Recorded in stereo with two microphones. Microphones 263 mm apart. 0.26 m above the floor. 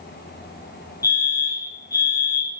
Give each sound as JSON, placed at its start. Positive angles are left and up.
{"t": 1.0, "sound": "a fire alarm", "side_deg": 35, "distance_m": 4.0}